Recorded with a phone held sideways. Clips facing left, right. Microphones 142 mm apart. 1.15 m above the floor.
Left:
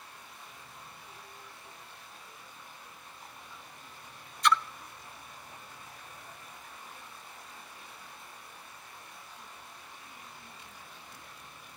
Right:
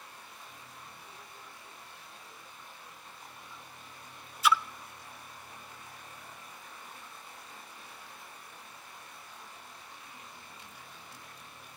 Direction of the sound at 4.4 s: 5° right (ahead or behind).